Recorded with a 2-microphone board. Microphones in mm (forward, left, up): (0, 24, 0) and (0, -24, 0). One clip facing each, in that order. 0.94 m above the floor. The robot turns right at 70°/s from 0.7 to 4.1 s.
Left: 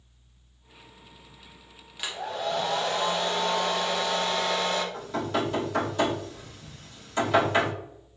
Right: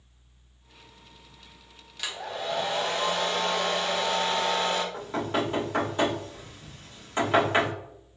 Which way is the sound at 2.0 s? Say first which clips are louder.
Left 2 dB; 160° left.